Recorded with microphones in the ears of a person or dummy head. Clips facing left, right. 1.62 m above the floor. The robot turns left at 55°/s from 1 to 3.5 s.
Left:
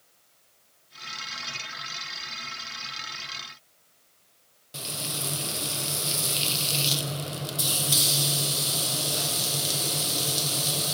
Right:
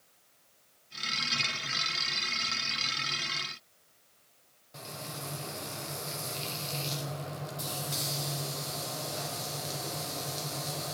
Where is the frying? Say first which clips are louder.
Left 5 dB; 45° left (ahead or behind), 0.8 m.